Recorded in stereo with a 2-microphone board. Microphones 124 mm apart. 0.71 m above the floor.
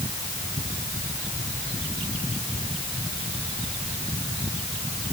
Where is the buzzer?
No buzzer in this recording.